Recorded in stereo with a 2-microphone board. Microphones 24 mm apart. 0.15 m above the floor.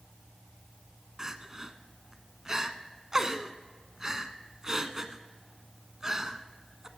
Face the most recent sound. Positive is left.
turn(degrees=-25)  # may be behind; listen again after turning